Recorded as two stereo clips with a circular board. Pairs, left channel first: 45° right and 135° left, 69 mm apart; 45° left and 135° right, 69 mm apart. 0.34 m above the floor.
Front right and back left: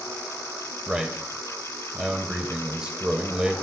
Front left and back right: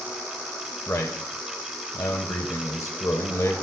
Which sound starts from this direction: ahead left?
A man speaking, at 0.9 s.